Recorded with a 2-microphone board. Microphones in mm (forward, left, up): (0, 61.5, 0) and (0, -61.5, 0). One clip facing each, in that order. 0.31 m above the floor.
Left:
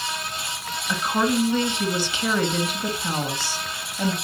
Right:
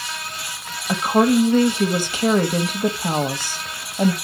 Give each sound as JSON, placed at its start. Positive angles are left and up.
{"t": 0.9, "sound": "a woman speaking", "side_deg": -45, "distance_m": 1.5}